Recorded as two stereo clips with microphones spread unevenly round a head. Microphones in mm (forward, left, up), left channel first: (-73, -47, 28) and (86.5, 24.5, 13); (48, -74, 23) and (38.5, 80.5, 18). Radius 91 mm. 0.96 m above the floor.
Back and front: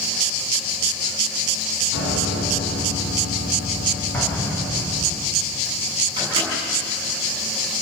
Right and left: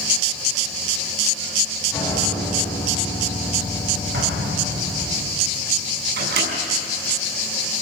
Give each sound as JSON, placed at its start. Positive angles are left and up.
{"t": 1.9, "sound": "a piano", "azimuth_deg": -160, "distance_m": 8.0}
{"t": 4.1, "sound": "an explosion", "azimuth_deg": 125, "distance_m": 4.5}
{"t": 6.2, "sound": "a microwave", "azimuth_deg": 90, "distance_m": 6.0}